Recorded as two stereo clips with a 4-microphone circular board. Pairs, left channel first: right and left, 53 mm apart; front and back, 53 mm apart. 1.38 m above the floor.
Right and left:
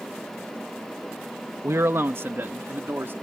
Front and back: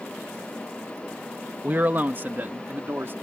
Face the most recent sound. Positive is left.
turn(degrees=135)